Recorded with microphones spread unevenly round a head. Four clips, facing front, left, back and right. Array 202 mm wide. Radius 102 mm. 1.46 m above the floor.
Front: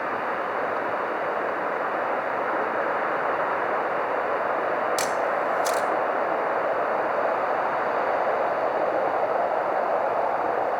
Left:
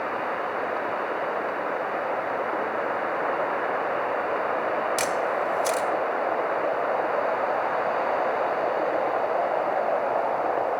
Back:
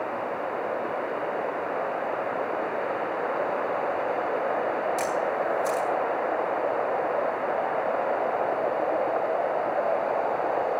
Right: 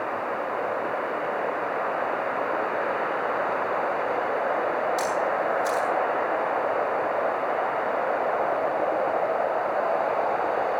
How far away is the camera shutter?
About 1.5 m.